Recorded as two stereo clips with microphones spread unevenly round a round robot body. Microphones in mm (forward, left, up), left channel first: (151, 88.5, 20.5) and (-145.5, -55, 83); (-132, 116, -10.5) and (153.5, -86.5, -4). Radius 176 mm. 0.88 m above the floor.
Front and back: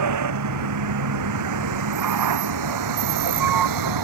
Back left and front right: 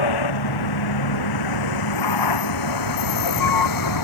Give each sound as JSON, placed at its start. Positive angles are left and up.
{"t": 0.0, "sound": "a vehicle", "azimuth_deg": 170}